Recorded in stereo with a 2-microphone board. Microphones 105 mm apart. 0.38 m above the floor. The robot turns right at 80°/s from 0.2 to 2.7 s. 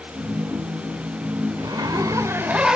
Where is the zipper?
100° right, 1.7 m; by 2.8 s 10° right, 1.7 m.